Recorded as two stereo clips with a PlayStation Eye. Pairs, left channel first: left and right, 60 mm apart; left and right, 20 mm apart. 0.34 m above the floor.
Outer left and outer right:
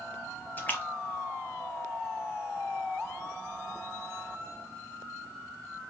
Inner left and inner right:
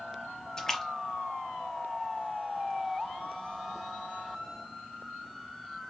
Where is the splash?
30° left (ahead or behind), 0.7 m.